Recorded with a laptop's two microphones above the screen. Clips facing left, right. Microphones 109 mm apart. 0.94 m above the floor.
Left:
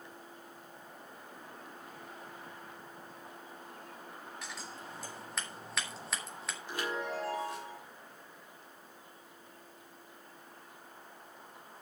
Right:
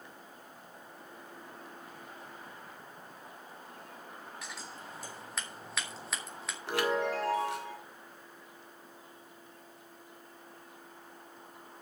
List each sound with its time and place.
4.4 s scissors: centre (ahead or behind), 3.5 m
6.7 s a chime: 85° right, 2 m